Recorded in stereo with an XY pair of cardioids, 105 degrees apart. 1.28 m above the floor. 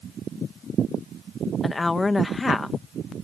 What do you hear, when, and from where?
1.6 s a woman speaking: 25° left